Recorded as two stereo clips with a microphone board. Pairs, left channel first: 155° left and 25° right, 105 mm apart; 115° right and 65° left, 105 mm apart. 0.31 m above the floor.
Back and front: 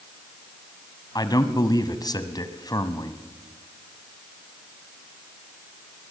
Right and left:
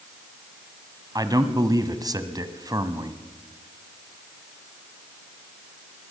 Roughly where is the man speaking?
Behind left.